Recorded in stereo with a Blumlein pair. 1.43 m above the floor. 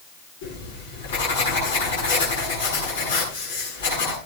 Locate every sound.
0.4 s writing: 65° left, 9 m